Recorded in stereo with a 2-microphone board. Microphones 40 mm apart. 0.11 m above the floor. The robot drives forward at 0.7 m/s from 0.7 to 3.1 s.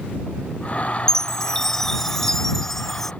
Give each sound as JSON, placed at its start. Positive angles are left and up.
{"t": 1.1, "sound": "a chime", "side_deg": 15}